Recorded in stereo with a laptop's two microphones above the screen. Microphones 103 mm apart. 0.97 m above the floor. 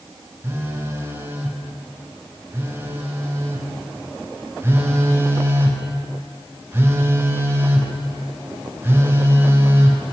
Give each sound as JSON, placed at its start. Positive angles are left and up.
{"t": 0.4, "sound": "a phone buzzing", "side_deg": -25, "distance_m": 0.6}